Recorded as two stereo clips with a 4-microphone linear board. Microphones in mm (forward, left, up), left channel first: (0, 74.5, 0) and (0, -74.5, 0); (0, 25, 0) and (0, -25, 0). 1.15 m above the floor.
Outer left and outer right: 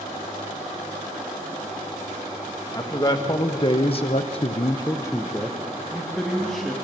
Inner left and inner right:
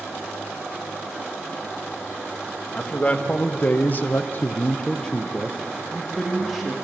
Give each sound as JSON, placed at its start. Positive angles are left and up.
{"t": 2.7, "sound": "a man speaking", "side_deg": 25, "distance_m": 1.8}